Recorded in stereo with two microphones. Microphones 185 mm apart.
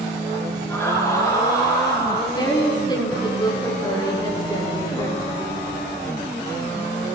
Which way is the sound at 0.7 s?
15° left (ahead or behind).